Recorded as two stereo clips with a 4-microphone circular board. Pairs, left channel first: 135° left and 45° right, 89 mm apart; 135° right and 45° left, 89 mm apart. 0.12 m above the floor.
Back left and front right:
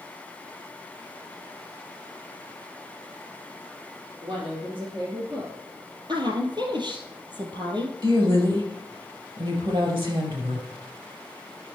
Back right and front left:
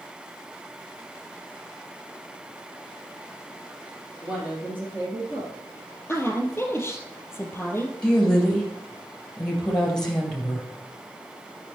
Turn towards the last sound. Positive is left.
turn(degrees=-55)